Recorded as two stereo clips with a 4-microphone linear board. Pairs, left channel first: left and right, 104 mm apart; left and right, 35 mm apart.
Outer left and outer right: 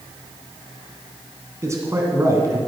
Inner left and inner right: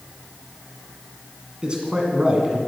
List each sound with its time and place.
1.6 s a man speaking: 25° right (ahead or behind), 2 m